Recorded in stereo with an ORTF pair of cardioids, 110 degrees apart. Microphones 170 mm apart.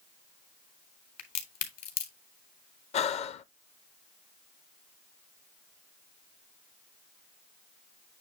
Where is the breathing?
40° left, 0.6 m.